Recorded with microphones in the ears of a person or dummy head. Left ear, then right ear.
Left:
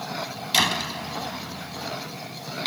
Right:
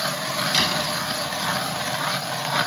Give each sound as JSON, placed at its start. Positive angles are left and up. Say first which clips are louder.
{"t": 0.5, "sound": "a door slam", "louder": "left 2 dB", "side_deg": 25}